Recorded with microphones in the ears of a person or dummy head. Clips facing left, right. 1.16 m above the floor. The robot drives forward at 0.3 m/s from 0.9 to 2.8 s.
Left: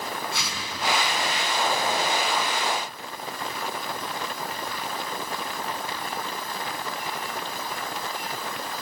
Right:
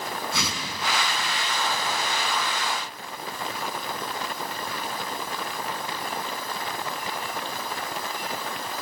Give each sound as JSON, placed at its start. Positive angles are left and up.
{"t": 0.3, "sound": "a whoosh", "side_deg": -70, "distance_m": 6.0}